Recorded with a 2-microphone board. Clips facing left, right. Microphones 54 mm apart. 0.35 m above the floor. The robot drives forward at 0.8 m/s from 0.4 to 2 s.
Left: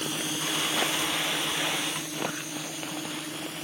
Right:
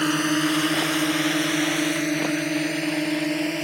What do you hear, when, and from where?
0.0 s a drone: 60° right (ahead or behind); by 3.6 s 65° right (ahead or behind)